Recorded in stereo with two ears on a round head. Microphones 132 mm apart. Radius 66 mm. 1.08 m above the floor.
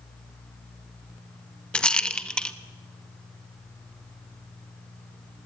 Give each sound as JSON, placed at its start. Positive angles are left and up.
{"t": 1.7, "sound": "a rattle", "side_deg": 5, "distance_m": 0.9}